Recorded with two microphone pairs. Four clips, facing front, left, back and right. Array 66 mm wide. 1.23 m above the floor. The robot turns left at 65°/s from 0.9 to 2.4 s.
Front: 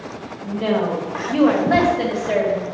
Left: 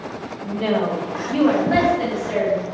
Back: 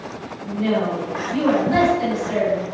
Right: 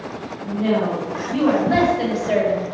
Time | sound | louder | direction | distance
0.4 | a woman speaking | right 1 dB, front 1 dB | 45° left | 2 m